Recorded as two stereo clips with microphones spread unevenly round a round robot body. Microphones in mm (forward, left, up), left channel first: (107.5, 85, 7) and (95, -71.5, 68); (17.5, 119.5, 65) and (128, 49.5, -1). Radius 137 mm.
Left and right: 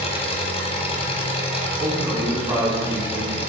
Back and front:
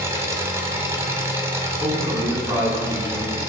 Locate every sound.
0.0 s an engine running: 35° left, 0.9 m
1.8 s a man speaking: 20° right, 2.0 m